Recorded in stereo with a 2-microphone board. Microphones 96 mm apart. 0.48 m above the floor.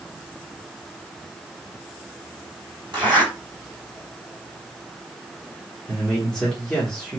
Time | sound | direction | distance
2.9 | a zipper | 60° right (ahead or behind) | 2.5 m
5.9 | a man speaking | 10° left (ahead or behind) | 1.0 m